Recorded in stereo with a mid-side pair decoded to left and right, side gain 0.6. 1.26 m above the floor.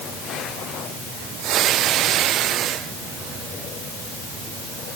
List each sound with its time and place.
Only background noise.